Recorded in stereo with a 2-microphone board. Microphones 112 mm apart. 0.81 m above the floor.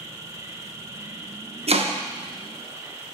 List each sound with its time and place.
0.0 s an insect: 30° right (ahead or behind), 0.7 m
1.7 s chopping: 60° right (ahead or behind), 0.5 m